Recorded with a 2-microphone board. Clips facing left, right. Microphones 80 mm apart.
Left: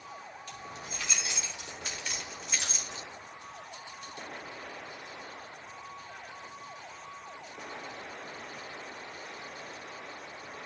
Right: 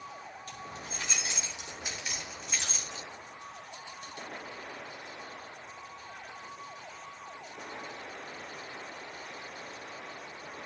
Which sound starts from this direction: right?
Keys jangling, at 0.5 s.